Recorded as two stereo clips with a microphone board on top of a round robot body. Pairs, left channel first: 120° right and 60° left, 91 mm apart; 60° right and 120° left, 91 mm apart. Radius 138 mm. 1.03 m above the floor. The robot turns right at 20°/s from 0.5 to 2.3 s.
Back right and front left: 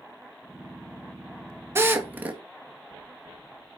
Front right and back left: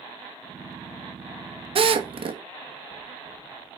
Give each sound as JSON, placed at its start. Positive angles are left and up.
{"t": 1.8, "sound": "a drill", "azimuth_deg": 125, "distance_m": 1.7}